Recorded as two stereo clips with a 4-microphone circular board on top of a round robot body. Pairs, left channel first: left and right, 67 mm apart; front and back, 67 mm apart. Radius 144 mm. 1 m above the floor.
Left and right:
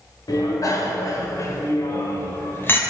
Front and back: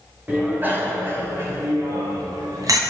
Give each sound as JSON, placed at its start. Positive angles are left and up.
{"t": 0.3, "sound": "a bicycle bell", "azimuth_deg": 115, "distance_m": 3.5}